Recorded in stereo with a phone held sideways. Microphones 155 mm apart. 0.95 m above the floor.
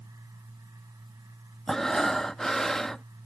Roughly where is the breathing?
Centre.